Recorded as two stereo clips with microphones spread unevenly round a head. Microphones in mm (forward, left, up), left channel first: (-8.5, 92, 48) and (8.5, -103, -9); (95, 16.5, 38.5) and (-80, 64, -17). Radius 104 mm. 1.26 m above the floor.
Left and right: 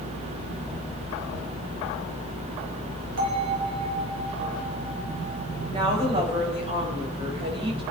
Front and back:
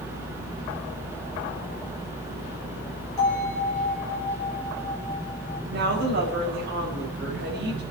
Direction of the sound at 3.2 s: 85° right.